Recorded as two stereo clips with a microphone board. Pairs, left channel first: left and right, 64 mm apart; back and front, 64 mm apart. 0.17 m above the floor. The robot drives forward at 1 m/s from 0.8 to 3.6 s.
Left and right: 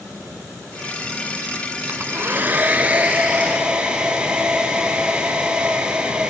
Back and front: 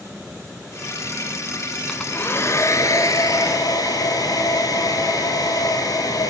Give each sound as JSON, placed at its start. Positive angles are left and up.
{"t": 1.9, "sound": "a hair dryer", "azimuth_deg": -105, "distance_m": 0.7}